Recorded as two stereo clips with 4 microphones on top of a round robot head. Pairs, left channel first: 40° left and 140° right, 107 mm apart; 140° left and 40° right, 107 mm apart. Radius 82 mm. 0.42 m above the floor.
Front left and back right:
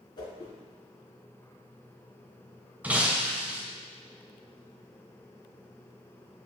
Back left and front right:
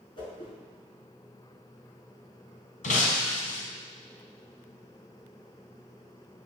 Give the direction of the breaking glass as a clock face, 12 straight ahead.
7 o'clock.